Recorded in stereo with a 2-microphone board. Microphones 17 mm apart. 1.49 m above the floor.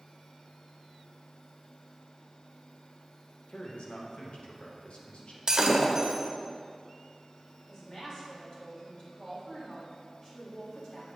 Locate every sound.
3.5 s a man speaking: 85° left, 1.5 m
5.5 s breaking glass: 45° right (ahead or behind), 1.2 m
7.7 s a woman speaking: 40° left (ahead or behind), 3.5 m